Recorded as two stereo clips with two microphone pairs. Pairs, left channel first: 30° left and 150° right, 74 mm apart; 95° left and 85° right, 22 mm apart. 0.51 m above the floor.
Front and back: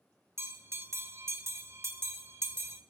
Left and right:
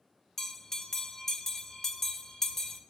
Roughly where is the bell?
Behind.